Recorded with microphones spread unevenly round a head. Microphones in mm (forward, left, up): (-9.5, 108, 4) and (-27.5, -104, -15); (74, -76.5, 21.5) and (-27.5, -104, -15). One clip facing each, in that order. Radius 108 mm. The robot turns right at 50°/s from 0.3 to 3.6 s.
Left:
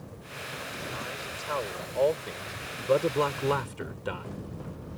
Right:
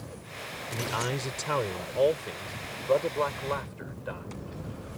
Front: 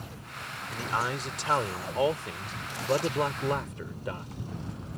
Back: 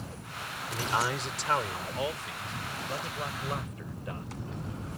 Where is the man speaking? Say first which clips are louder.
Right 9 dB, back 1 dB; 90° right; by 4.3 s 55° left.